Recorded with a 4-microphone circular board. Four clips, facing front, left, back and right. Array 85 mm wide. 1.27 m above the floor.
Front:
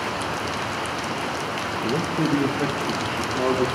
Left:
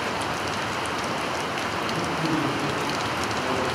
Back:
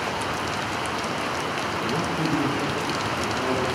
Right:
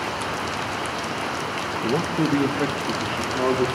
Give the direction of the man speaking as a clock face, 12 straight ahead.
2 o'clock.